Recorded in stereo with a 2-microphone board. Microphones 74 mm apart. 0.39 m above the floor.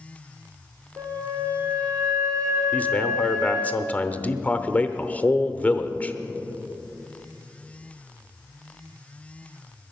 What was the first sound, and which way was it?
A flute, 50° right (ahead or behind).